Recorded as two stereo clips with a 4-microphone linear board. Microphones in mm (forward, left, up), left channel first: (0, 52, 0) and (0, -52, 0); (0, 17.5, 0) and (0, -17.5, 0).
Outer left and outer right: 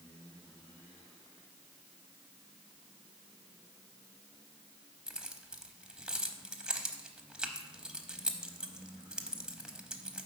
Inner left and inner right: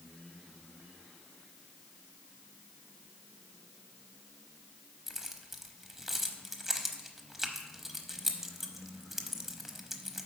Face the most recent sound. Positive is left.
turn(degrees=-5)  # may be behind; listen again after turning